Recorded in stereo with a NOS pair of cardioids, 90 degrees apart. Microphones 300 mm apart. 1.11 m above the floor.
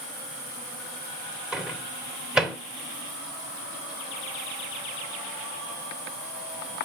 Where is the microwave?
Straight ahead, 2.5 m.